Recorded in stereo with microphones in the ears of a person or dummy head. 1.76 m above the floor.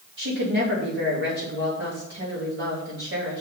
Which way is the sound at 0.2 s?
55° right (ahead or behind).